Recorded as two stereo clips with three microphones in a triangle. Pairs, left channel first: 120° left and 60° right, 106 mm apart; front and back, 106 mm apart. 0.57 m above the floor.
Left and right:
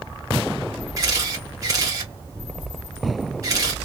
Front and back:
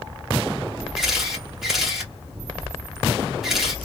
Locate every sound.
1.0 s a camera shutter: 95° right, 0.9 m